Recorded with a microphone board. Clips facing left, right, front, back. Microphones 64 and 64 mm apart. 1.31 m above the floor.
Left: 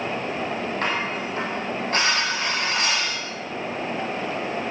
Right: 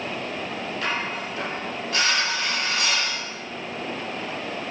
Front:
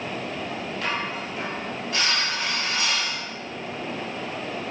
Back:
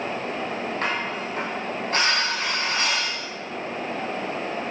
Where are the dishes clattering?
135° left, 7.5 m.